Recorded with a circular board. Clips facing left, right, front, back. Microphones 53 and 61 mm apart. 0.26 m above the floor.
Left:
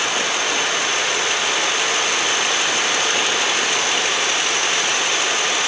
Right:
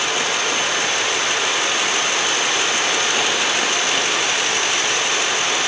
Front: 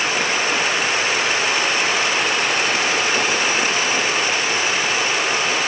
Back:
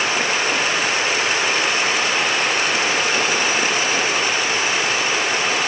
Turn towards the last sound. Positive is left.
No sound to turn to.